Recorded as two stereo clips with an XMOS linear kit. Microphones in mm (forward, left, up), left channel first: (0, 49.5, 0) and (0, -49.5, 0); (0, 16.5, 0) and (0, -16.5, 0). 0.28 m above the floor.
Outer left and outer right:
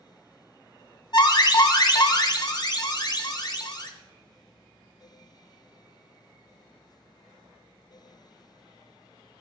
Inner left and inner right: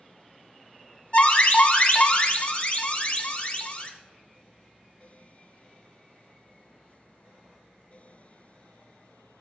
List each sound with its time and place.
1.1 s an alarm: 45° left (ahead or behind), 1.3 m